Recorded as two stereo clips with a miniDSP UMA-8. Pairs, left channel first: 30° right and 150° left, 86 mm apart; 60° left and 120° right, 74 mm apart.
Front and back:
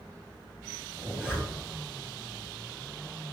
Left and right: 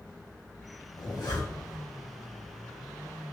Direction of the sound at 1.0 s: 85° left.